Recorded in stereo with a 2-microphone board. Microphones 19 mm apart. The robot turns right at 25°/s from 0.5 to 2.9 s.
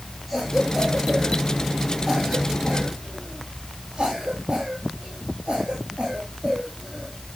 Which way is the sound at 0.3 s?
5° left (ahead or behind).